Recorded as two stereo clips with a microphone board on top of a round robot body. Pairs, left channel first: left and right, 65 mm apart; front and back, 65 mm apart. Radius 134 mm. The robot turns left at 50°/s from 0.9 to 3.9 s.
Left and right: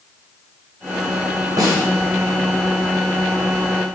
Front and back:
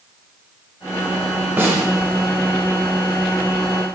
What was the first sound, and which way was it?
A snare drum, 120° right.